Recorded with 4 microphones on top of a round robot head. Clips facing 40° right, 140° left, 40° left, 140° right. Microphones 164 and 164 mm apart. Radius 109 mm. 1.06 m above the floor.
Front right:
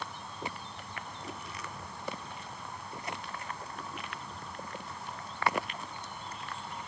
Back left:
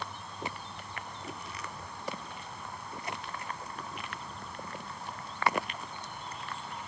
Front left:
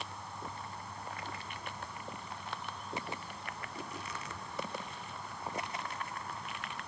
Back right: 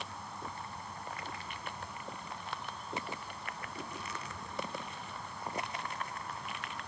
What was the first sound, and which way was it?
Only background noise.